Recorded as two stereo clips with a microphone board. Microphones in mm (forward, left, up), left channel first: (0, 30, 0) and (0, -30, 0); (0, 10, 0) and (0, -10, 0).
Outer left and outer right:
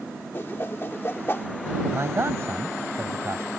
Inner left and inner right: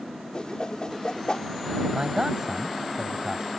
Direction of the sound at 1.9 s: 45° right (ahead or behind).